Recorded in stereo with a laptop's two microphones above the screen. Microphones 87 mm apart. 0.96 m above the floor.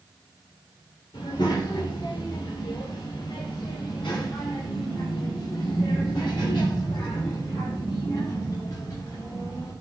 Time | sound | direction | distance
1.1 | a child speaking | 70° left (ahead or behind) | 3 m